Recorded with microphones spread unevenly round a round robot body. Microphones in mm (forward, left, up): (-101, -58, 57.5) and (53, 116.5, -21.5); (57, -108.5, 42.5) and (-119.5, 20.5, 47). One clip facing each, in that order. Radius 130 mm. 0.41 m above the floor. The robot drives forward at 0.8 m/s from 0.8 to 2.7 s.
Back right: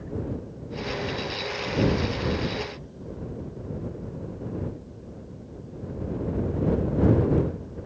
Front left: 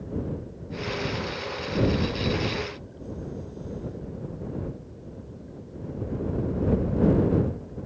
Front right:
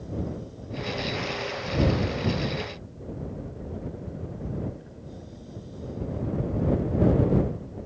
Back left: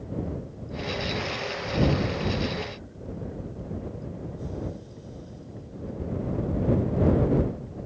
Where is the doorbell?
No doorbell in this recording.